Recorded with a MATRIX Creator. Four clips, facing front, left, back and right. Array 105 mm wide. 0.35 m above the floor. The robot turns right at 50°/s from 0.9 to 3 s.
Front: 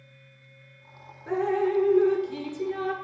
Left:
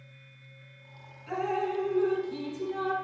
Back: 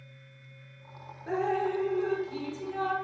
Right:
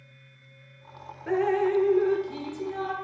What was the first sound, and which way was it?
Dripping, 85° right.